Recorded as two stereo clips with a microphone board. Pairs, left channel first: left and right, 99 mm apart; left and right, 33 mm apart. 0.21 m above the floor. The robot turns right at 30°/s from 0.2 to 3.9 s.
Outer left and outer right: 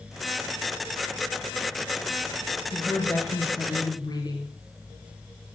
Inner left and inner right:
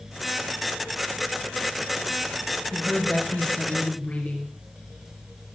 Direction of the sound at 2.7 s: 10° left.